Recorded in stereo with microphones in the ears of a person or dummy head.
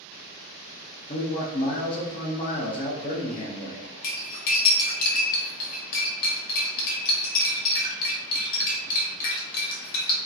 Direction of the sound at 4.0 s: 45° left (ahead or behind).